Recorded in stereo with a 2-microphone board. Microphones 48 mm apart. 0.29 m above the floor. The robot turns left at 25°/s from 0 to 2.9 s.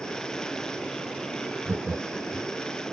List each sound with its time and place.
1.6 s laughter: 50° right (ahead or behind), 1.3 m